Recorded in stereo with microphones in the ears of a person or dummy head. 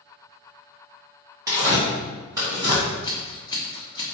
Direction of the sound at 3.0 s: 25° left (ahead or behind).